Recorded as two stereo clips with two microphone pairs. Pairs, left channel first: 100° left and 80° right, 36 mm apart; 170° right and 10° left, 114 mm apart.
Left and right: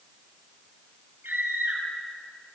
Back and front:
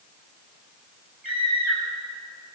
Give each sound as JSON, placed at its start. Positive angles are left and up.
{"t": 1.2, "sound": "a scream", "azimuth_deg": -70, "distance_m": 9.5}